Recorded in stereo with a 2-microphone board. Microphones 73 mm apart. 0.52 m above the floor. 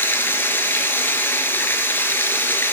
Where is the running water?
30° left (ahead or behind), 4.5 m.